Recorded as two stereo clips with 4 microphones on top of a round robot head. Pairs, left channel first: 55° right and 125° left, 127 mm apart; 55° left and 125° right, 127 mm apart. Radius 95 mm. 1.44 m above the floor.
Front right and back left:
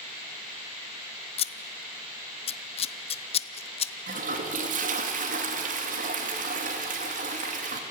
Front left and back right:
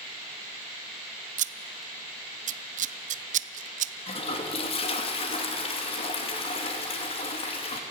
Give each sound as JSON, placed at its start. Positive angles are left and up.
{"t": 1.4, "sound": "scissors", "azimuth_deg": -100, "distance_m": 0.6}
{"t": 4.1, "sound": "a toilet flushing", "azimuth_deg": 105, "distance_m": 2.5}